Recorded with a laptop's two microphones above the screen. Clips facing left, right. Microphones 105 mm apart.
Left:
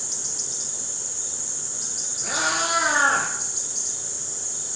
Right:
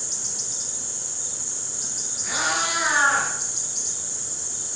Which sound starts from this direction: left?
A cat meowing, at 2.2 s.